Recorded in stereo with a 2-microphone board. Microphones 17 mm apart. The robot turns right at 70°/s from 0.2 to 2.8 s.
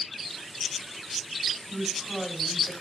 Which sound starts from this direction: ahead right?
A woman speaking, at 1.7 s.